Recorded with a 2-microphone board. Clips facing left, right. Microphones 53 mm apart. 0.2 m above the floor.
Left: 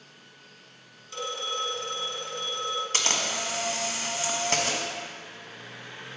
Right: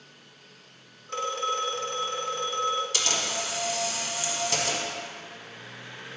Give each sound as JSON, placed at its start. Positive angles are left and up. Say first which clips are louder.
{"t": 1.1, "sound": "a phone ringing", "louder": "right 5 dB", "side_deg": -50, "distance_m": 1.2}
{"t": 2.9, "sound": "a camera shutter", "louder": "left 1 dB", "side_deg": 40, "distance_m": 1.1}